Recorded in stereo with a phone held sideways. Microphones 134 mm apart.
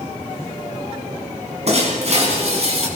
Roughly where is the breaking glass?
Right.